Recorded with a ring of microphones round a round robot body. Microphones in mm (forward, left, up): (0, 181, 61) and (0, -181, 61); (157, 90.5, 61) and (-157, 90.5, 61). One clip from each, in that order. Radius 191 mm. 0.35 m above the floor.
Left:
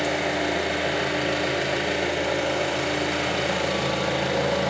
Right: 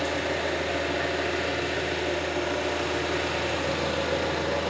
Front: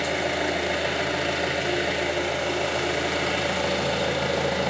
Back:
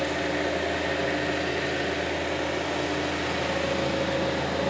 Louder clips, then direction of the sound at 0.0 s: Left 3 dB, front 2 dB; 30° left.